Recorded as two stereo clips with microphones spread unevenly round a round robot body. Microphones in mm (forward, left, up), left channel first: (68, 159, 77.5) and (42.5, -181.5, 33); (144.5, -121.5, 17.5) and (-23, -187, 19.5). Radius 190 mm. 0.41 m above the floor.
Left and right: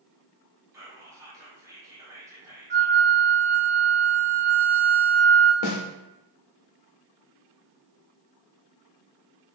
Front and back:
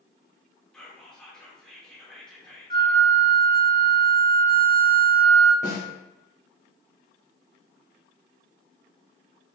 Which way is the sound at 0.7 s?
55° right.